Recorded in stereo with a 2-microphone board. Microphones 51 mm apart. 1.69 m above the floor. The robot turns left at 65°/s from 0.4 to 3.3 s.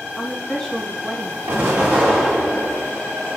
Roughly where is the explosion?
Behind right.